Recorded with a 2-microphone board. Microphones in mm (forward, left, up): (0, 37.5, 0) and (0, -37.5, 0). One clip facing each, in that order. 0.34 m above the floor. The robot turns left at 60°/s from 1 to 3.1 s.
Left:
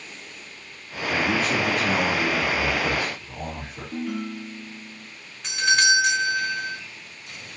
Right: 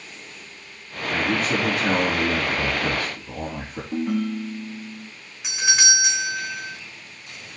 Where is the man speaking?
10° left, 5.5 m; by 3.8 s 110° right, 5.5 m.